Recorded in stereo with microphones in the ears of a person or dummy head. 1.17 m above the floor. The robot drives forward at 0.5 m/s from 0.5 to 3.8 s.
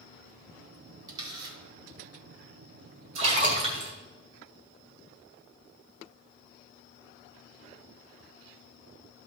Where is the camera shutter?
25° right (ahead or behind), 3 m; by 1.6 s 30° right (ahead or behind), 2.5 m.